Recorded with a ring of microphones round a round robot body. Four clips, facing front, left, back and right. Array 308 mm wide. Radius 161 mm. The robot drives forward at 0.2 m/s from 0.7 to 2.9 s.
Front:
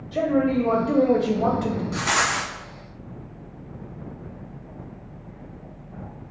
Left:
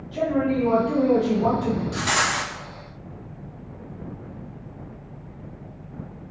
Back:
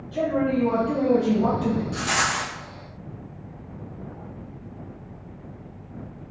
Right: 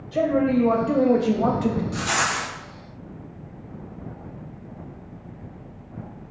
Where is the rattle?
30° left, 1.2 m; by 2.5 s 35° left, 1.1 m.